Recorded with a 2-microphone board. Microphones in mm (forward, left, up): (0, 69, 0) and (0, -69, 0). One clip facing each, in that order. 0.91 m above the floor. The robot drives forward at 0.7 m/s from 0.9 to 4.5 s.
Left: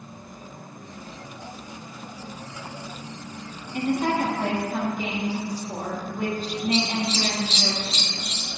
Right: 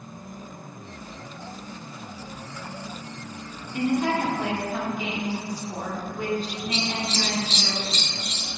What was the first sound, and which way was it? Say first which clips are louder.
A woman speaking: even; 50° left (ahead or behind).